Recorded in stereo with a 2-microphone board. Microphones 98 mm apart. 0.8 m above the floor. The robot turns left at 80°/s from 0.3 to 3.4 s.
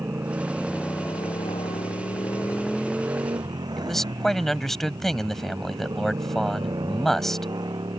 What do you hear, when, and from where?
0.0 s a motorcycle: 155° right; by 8.0 s 45° right
3.8 s a man speaking: 5° left (ahead or behind)